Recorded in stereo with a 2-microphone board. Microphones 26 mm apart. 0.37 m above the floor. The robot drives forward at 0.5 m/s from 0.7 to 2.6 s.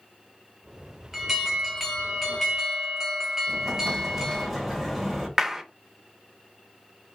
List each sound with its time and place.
1.1 s an alarm: 10° right (ahead or behind), 1.2 m; by 4.5 s 5° right (ahead or behind), 1.6 m
3.5 s an explosion: 5° right (ahead or behind), 1.2 m
5.4 s a clap: 15° right (ahead or behind), 0.6 m